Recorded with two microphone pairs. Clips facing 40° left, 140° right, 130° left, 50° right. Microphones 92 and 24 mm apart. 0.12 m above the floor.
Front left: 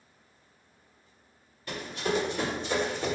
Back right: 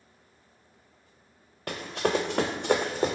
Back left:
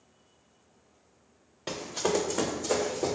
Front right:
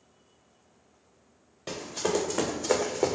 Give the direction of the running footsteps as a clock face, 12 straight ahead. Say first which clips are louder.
Back right 3 dB, even; 5 o'clock.